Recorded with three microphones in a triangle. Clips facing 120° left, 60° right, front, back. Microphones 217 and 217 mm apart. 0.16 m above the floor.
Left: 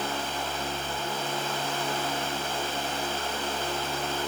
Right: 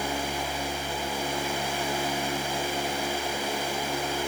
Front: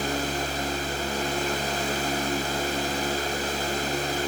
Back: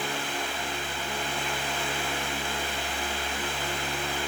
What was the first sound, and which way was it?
Only background noise.